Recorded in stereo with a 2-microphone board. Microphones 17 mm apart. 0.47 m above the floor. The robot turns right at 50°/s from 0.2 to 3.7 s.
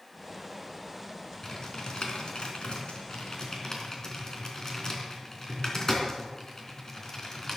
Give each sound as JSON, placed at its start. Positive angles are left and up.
{"t": 1.4, "sound": "typing on a keyboard", "side_deg": 35, "distance_m": 3.5}